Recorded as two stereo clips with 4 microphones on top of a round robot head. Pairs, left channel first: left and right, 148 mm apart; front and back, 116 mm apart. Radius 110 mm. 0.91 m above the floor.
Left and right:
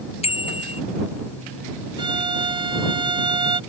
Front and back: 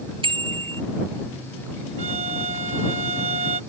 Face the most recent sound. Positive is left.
turn(degrees=-145)